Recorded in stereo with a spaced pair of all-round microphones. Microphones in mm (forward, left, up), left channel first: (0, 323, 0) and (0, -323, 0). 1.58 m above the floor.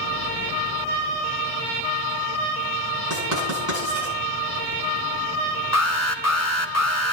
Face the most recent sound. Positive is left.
turn(degrees=25)  # may be behind; listen again after turning